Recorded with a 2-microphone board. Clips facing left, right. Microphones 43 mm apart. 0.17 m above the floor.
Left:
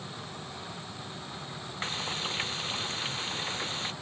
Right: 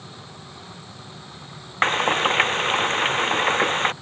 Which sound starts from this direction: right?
Frying, at 1.8 s.